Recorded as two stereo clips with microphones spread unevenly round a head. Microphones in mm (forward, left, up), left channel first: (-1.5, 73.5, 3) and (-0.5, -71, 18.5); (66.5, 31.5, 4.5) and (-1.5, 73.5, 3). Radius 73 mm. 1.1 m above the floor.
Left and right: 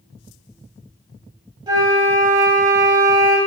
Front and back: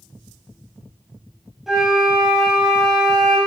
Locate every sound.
1.7 s a flute: 125° right, 1.1 m